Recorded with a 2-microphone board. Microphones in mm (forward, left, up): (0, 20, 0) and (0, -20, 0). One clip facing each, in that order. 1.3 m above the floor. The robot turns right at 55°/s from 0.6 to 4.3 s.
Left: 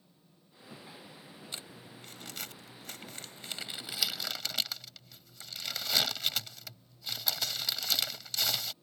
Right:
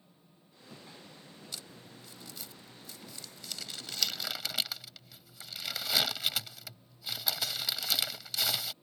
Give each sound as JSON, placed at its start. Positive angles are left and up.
{"t": 1.5, "sound": "crumpling", "side_deg": 30}